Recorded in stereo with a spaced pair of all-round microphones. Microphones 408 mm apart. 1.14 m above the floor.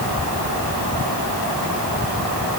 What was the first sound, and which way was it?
Only background noise.